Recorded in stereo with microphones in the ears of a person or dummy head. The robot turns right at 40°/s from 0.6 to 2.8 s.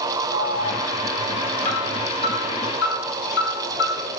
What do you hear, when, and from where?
0.3 s an alarm: 25° right (ahead or behind), 8 m; by 4.2 s 60° left (ahead or behind), 8 m